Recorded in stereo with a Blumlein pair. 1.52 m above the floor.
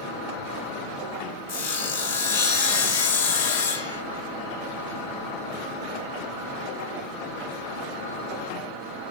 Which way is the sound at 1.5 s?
50° left.